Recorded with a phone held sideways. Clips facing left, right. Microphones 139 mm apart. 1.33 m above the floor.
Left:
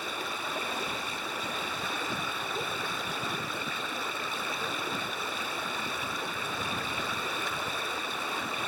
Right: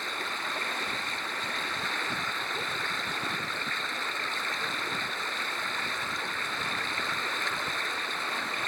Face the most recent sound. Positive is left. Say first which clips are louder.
# left 1 dB
turn(degrees=10)  # may be behind; listen again after turning